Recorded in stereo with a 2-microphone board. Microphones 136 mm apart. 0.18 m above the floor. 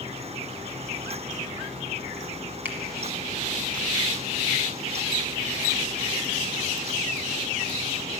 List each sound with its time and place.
2.6 s a finger snap: 15° right (ahead or behind), 1.6 m